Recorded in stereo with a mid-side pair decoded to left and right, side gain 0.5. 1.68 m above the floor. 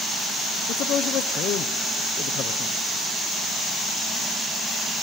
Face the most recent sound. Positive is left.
turn(degrees=70)